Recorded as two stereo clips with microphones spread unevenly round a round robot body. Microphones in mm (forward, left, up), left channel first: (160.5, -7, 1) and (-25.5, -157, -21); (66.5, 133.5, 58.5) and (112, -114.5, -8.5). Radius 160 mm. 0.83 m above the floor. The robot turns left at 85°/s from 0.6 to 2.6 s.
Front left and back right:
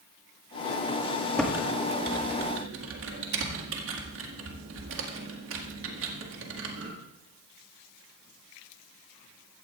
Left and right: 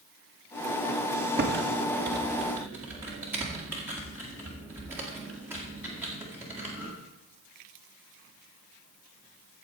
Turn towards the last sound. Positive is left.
turn(degrees=-155)